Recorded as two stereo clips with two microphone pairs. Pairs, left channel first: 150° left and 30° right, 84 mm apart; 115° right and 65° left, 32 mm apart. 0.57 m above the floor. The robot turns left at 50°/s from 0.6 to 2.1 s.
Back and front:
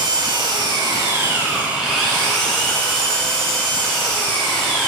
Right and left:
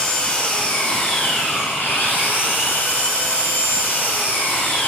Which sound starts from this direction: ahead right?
An engine running, at 0.0 s.